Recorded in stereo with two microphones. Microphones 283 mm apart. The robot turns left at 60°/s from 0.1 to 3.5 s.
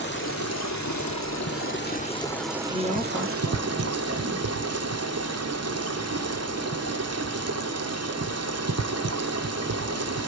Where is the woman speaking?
25° left, 3.5 m; by 4.5 s 20° right, 3.5 m.